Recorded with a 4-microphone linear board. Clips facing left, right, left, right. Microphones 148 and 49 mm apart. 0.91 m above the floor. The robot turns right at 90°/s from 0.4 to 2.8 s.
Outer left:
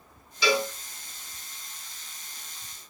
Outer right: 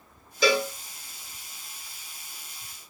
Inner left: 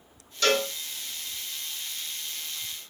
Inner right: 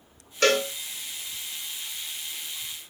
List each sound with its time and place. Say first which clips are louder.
0.4 s a cowbell: outer right 2 dB, inner right 2 dB; 45° right (ahead or behind), 1.1 m; by 0.7 s 25° right (ahead or behind), 1.1 m